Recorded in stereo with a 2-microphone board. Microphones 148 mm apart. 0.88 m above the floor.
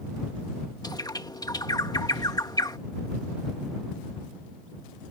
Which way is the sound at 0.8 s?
25° left (ahead or behind).